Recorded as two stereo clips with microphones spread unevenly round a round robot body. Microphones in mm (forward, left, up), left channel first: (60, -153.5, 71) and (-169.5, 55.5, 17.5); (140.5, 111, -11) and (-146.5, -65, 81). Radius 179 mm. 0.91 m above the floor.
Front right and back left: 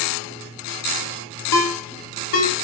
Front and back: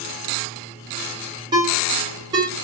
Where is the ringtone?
65° right, 1.3 m.